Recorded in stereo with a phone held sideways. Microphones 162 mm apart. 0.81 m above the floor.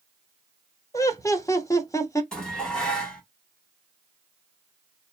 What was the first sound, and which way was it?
Laughter, 20° left (ahead or behind).